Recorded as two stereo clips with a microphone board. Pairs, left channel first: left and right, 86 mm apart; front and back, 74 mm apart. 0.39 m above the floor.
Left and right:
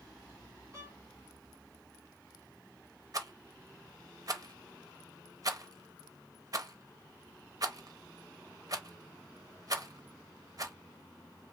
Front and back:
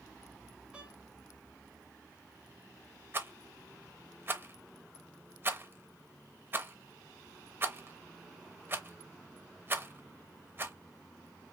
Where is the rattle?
125° right, 0.7 m.